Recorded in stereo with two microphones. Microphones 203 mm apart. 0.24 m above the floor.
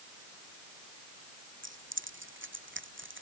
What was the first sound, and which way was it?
Keys jangling, 70° right (ahead or behind).